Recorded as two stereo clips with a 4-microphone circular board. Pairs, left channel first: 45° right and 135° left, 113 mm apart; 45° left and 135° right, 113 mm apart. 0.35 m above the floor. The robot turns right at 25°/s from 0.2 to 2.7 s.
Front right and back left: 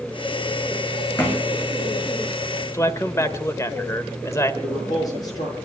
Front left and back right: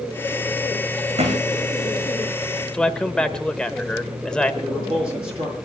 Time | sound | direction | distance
1.2 | a thud | 115° right | 6 m
2.7 | a man speaking | 25° right | 1.2 m
4.6 | a man speaking | 100° right | 9.5 m